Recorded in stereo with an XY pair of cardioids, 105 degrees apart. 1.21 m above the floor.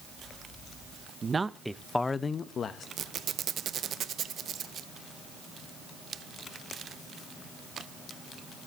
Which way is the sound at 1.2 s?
35° right.